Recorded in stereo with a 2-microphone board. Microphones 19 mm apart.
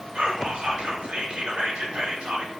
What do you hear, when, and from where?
0.1 s whispering: 65° right (ahead or behind), 0.8 m